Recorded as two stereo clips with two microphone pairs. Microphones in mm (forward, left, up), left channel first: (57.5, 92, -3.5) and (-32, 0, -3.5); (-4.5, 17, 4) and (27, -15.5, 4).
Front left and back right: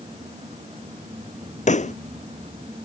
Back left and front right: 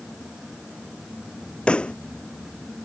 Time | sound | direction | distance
1.7 | a pop | 65° left | ?